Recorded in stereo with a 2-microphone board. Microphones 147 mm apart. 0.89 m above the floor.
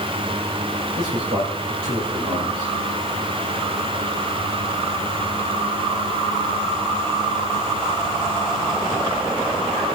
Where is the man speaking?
85° right, 3.5 m.